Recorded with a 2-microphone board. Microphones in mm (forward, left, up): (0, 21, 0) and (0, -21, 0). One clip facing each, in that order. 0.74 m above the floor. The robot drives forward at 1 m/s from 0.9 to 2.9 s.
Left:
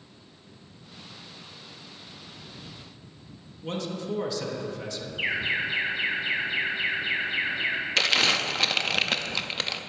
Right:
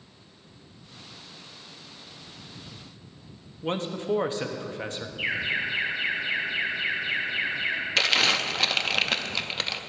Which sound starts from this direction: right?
A man speaking, at 3.6 s.